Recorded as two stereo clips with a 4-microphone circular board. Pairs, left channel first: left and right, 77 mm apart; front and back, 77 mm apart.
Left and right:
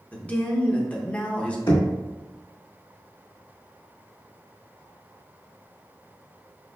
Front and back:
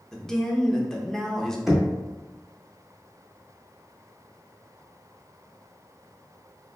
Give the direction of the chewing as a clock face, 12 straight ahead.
I don't hear chewing.